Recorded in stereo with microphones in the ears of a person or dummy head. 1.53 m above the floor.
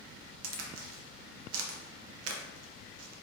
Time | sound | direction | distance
0.4 | a crack | 75° right (ahead or behind) | 0.5 m